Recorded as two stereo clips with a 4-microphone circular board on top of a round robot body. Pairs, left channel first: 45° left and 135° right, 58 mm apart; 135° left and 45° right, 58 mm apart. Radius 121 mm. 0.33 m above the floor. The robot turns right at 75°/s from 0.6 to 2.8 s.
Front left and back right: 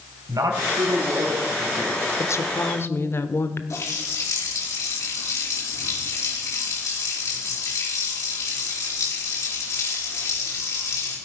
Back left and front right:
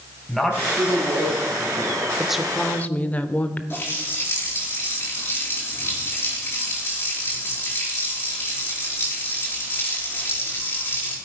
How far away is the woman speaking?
About 1.2 m.